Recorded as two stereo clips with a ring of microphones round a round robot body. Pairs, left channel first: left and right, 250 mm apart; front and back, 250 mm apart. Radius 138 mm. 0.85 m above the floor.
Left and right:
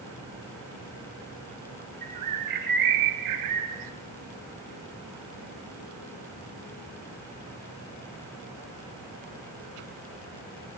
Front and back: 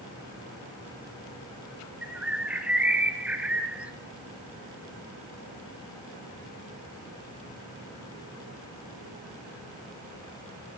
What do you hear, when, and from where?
2.0 s a bird: 95° right, 1.7 m